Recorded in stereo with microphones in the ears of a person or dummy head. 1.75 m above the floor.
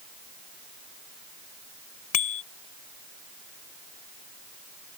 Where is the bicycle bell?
40° left (ahead or behind).